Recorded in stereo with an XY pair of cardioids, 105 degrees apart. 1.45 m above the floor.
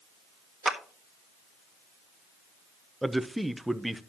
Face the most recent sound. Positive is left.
turn(degrees=-5)